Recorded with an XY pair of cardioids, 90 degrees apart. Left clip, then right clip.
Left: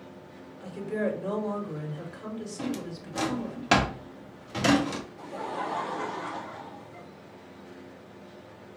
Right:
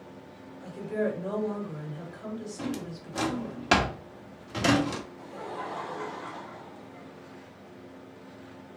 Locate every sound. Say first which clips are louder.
0.6 s a woman speaking: even; 30° left, 2 m
2.6 s a drawer: left 3 dB; straight ahead, 1.2 m
5.2 s laughter: left 4 dB; 35° left, 0.6 m